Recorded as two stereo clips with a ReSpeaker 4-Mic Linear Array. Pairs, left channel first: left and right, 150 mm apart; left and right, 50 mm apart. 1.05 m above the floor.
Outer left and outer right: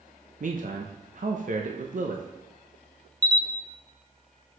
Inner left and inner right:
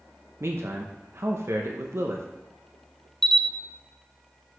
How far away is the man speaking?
About 0.8 m.